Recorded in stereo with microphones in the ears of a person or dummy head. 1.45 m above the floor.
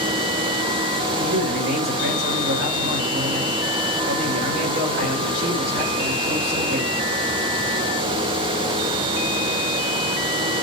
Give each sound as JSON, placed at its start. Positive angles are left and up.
{"t": 1.2, "sound": "a man speaking", "side_deg": -55, "distance_m": 4.0}